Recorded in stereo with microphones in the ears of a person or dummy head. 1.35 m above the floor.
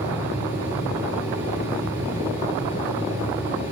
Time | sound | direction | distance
0.0 | a fan | 10° right (ahead or behind) | 9 m